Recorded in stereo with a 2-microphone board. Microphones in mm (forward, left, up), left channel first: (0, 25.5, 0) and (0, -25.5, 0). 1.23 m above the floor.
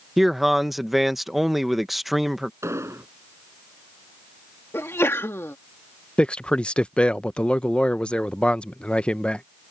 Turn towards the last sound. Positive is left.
turn(degrees=20)  # may be behind; listen again after turning